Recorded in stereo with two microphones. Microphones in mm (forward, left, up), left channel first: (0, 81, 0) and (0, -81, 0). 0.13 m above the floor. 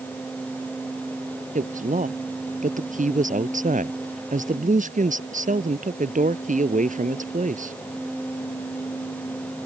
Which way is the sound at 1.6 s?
55° right (ahead or behind).